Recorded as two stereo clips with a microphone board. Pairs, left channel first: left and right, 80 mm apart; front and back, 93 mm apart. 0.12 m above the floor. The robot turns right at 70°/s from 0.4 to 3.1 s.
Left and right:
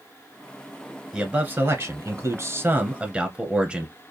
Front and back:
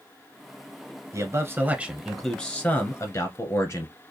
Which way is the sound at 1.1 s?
165° right.